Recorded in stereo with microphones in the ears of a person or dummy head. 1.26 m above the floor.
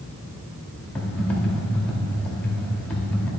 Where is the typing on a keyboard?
5° left (ahead or behind), 1.1 m.